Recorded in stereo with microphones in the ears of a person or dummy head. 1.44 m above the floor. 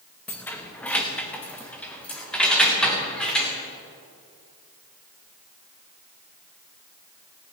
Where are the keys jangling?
10° left (ahead or behind), 0.8 m; by 3.5 s 5° left (ahead or behind), 2.5 m.